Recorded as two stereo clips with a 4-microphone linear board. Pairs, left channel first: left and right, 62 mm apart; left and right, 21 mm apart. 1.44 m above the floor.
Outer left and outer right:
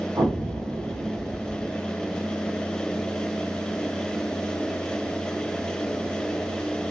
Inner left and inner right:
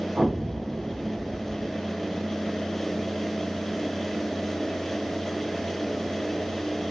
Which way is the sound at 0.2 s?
75° right (ahead or behind).